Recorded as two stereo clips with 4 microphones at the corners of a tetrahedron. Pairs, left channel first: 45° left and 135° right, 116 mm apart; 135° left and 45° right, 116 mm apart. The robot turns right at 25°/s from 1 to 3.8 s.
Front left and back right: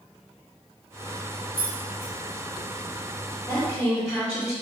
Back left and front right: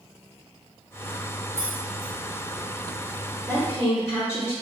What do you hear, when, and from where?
1.6 s keys jangling: 10° left, 1.4 m; by 2.1 s 25° left, 1.4 m
3.5 s a woman speaking: 100° left, 1.7 m; by 4.5 s 105° left, 1.7 m